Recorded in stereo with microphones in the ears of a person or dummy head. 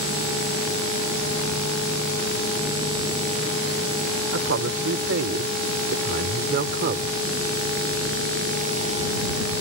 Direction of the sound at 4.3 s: 65° right (ahead or behind).